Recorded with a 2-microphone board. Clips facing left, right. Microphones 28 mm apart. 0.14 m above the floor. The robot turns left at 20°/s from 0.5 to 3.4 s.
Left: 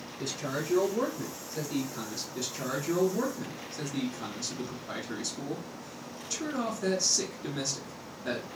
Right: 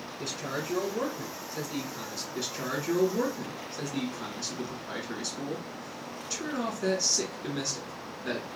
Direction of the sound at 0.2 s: 10° right (ahead or behind).